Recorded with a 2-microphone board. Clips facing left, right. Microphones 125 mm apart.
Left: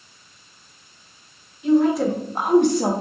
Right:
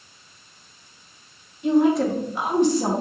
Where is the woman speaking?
25° right (ahead or behind), 0.7 m; by 2.9 s 65° left (ahead or behind), 1.1 m.